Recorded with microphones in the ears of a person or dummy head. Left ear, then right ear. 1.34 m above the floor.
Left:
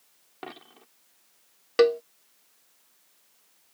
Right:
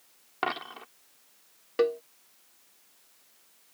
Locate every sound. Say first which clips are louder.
0.4 s a dropped coin: right 12 dB; 50° right (ahead or behind)
1.8 s a cowbell: left 6 dB; 50° left (ahead or behind)